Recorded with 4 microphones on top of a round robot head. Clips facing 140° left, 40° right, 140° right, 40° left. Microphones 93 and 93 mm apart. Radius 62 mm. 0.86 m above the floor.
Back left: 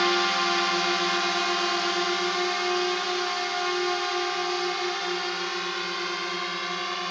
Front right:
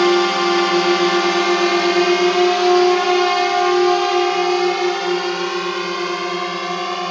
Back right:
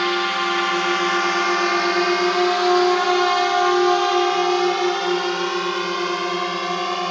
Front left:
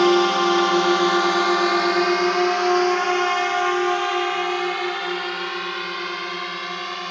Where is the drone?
10° right; by 7.1 s 90° right.